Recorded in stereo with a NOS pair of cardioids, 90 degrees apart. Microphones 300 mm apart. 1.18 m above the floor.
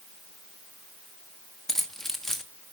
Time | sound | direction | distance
1.7 | keys jangling | straight ahead | 1.3 m